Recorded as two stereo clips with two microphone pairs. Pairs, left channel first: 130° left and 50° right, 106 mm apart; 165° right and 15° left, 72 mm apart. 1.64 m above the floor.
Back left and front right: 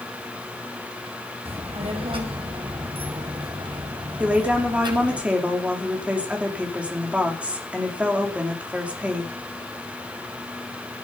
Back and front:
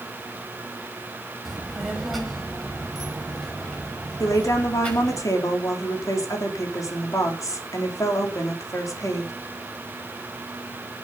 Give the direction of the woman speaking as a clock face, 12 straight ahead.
4 o'clock.